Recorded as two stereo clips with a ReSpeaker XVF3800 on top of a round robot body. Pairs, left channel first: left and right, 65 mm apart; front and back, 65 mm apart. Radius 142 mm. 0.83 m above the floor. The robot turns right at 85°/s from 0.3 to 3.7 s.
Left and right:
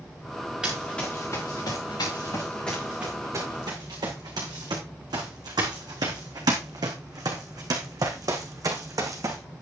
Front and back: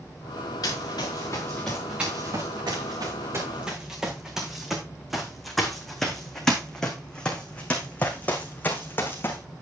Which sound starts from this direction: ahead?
Running footsteps, at 0.6 s.